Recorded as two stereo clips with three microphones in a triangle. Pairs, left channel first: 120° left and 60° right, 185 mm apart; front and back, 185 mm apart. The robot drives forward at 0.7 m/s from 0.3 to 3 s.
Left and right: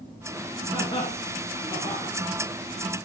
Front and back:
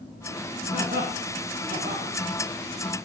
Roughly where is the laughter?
Behind.